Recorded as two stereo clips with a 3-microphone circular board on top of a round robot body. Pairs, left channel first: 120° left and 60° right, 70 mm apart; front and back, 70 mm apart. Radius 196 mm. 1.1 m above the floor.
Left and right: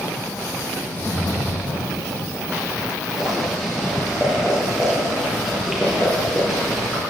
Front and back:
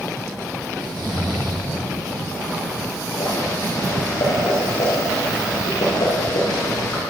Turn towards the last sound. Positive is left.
turn(degrees=25)